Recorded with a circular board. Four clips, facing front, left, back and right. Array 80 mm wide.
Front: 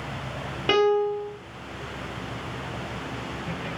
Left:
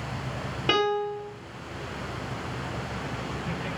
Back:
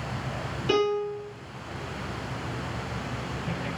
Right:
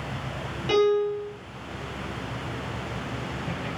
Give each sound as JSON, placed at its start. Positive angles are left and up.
{"t": 0.7, "sound": "a piano", "azimuth_deg": 40, "distance_m": 1.5}